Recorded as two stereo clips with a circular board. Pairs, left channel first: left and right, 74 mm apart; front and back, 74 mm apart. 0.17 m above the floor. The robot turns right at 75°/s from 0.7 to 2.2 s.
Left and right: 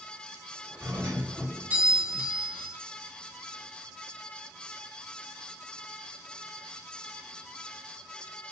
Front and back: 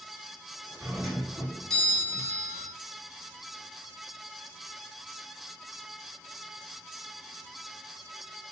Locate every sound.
0.8 s a doorbell: 135° right, 2 m; by 2.7 s 30° right, 2 m